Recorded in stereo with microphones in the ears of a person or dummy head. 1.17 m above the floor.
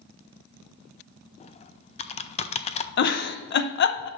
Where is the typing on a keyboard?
25° left (ahead or behind), 0.5 m.